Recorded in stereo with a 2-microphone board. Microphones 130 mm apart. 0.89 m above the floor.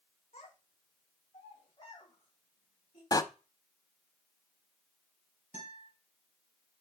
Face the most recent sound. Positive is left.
turn(degrees=75)  # may be behind; listen again after turning